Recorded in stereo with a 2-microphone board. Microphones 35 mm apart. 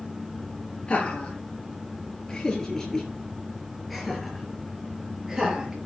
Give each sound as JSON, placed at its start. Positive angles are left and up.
{"t": 0.9, "sound": "laughter", "side_deg": 35, "distance_m": 4.0}